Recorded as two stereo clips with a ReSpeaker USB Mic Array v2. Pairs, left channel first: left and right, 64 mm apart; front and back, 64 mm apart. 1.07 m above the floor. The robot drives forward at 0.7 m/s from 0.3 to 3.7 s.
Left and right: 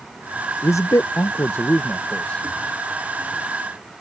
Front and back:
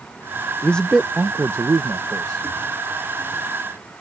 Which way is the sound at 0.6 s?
60° left.